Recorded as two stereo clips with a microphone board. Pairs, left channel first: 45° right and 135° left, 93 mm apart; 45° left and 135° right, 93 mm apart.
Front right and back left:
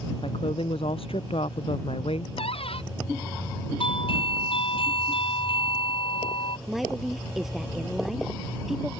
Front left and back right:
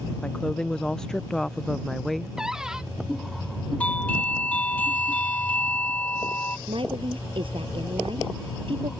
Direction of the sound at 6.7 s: 140° right.